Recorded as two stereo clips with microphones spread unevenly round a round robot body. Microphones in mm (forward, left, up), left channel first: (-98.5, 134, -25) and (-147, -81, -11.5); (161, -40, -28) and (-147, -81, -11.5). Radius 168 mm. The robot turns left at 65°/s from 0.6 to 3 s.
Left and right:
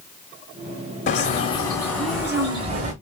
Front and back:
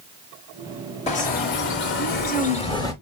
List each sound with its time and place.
1.1 s a bird: 60° left, 1.0 m; by 2.9 s 65° right, 1.0 m